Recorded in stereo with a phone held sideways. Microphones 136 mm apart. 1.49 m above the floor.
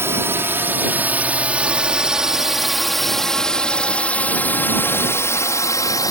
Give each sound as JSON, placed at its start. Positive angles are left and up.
{"t": 0.0, "sound": "a drone", "side_deg": -20}